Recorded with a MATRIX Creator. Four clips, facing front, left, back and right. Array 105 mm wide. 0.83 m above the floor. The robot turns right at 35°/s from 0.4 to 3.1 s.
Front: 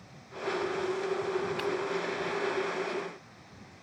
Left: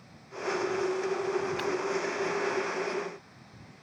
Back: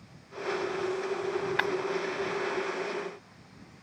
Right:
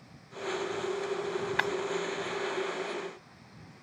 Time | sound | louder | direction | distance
1.6 | breaking glass | right 1 dB, back 3 dB | 130° right | ?